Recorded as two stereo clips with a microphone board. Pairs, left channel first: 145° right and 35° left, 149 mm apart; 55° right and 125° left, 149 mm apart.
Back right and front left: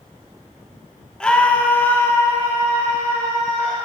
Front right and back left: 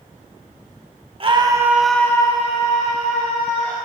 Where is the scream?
135° left, 1.3 m; by 3.8 s 70° right, 2.5 m.